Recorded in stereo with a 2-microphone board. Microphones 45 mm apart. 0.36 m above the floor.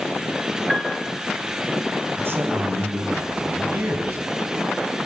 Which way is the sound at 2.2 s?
60° right (ahead or behind).